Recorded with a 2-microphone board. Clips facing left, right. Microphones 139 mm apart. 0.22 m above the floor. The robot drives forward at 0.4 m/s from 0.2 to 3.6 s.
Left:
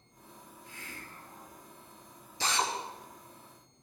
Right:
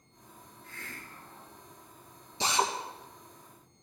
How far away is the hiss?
About 2 m.